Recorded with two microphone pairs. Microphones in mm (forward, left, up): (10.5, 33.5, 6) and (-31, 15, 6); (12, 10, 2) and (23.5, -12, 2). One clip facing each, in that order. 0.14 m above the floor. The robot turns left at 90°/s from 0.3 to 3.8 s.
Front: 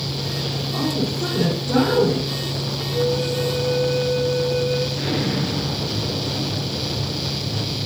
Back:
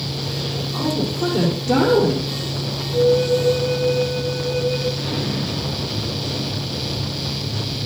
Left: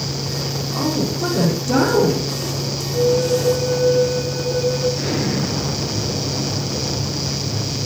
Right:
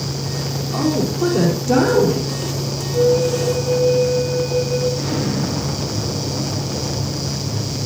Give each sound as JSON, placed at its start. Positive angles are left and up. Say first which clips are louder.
{"t": 0.7, "sound": "a woman speaking", "louder": "back 1 dB, right 3 dB", "azimuth_deg": -30, "distance_m": 3.0}
{"t": 2.9, "sound": "a flute", "louder": "back 6 dB, right 1 dB", "azimuth_deg": -150, "distance_m": 3.5}
{"t": 5.0, "sound": "an explosion", "louder": "front 2 dB, even", "azimuth_deg": 70, "distance_m": 1.8}